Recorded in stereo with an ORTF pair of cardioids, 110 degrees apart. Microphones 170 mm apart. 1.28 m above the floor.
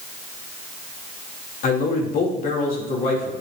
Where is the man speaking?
55° left, 3 m.